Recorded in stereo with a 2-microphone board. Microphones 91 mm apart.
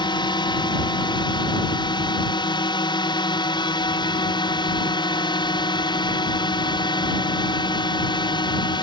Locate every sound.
0.0 s a drone: 55° left (ahead or behind)